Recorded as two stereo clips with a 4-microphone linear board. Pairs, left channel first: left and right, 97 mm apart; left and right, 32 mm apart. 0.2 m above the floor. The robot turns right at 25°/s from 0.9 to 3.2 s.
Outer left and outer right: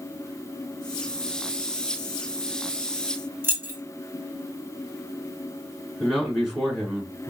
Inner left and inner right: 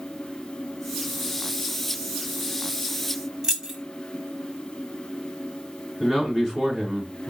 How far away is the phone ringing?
No phone ringing in this recording.